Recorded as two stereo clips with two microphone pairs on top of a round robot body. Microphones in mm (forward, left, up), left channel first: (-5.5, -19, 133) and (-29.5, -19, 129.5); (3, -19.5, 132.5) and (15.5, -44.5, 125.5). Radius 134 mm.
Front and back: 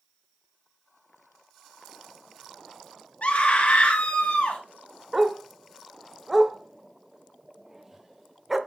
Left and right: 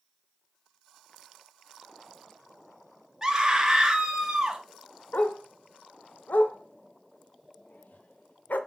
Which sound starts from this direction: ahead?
A scream, at 3.2 s.